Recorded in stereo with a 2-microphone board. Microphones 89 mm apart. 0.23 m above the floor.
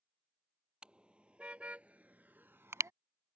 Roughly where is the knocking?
No knocking in this recording.